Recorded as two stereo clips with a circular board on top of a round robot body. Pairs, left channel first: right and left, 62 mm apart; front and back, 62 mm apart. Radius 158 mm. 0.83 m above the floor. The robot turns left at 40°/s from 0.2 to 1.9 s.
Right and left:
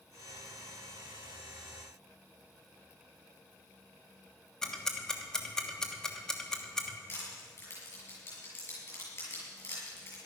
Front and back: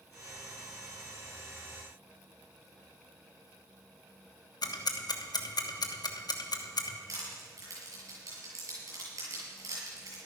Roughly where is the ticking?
Ahead.